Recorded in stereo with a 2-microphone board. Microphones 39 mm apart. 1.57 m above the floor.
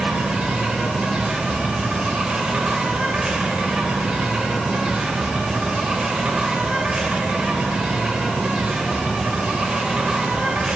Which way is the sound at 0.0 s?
20° right (ahead or behind).